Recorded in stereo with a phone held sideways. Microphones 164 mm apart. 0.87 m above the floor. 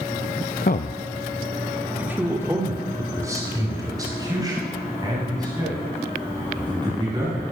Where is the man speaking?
60° left (ahead or behind), 0.6 m; by 7.4 s 25° right (ahead or behind), 7 m.